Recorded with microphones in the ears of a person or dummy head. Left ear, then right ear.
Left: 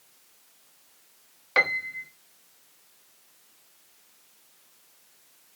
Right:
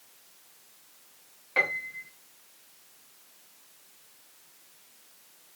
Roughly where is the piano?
Left.